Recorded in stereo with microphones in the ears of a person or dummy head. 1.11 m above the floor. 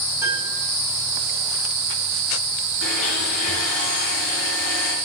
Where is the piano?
15° right (ahead or behind), 4.5 m.